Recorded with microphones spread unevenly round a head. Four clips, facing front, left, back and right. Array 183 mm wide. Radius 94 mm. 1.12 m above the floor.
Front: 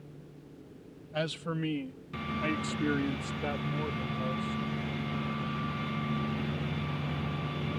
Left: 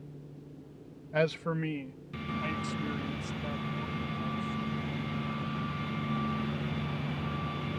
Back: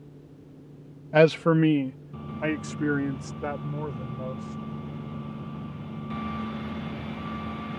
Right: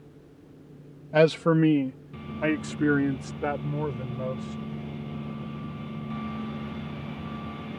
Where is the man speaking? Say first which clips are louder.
Right 10 dB, back 15 dB; 145° right; by 4.6 s 90° right.